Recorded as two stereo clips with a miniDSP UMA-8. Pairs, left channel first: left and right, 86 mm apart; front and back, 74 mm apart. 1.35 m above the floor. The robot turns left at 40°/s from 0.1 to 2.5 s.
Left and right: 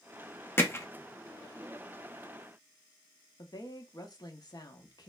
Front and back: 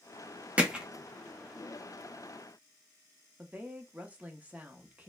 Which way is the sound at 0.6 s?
125° left.